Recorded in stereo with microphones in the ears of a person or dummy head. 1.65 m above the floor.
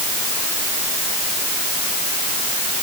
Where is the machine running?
No machine running in this recording.